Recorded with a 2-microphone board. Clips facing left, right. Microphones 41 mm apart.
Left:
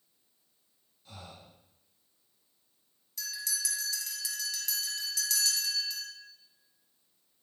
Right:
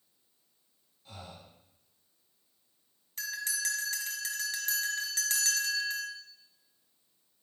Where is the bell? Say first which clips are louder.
Right 3 dB; 40° right (ahead or behind), 1.6 m.